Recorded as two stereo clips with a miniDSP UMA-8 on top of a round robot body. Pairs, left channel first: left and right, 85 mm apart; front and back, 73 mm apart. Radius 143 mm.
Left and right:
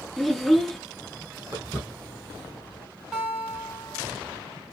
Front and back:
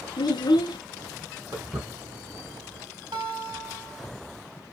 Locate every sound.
0.2 s a child speaking: straight ahead, 0.7 m
1.5 s footsteps: 150° right, 1.4 m; by 2.9 s 160° left, 1.2 m
3.1 s a guitar: 170° right, 1.3 m